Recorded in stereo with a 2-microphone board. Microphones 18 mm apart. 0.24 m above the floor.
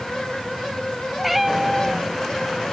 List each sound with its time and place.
1.2 s a cat meowing: 10° right (ahead or behind)